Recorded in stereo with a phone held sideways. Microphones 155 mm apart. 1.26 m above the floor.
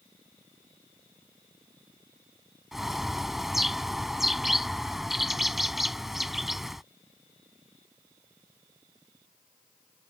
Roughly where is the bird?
Centre.